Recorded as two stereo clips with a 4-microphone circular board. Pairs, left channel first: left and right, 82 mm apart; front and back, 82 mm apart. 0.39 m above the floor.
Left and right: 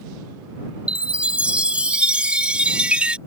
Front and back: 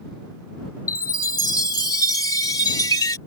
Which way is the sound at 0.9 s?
20° right.